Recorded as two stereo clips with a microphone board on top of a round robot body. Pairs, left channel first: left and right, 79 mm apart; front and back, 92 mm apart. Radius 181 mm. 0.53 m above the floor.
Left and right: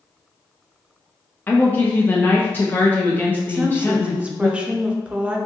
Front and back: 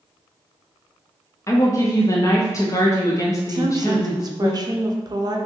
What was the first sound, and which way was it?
A woman speaking, 35° left.